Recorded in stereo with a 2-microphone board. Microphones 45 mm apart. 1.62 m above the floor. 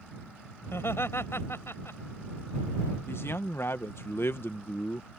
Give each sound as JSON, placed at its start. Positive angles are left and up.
{"t": 0.7, "sound": "laughter", "side_deg": 65}
{"t": 3.1, "sound": "a man speaking", "side_deg": 60}